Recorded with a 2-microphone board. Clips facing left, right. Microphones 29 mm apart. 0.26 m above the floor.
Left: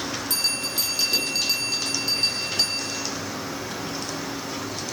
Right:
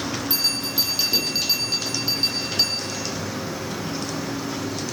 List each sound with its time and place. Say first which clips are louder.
0.3 s a bell: right 2 dB; 20° right (ahead or behind), 8.5 m